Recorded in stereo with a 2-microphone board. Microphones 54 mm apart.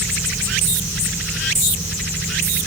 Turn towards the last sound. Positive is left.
No sound to turn to.